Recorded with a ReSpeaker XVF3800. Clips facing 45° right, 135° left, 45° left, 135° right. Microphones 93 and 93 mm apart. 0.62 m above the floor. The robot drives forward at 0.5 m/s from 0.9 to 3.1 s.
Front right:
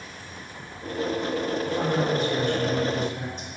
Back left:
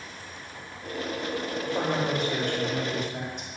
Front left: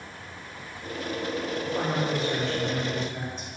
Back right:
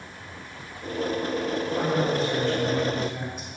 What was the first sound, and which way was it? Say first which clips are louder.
A man speaking: even, back right 3 dB; 120° left.